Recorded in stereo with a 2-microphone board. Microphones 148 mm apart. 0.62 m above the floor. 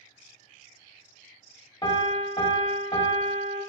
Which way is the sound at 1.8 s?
35° left (ahead or behind).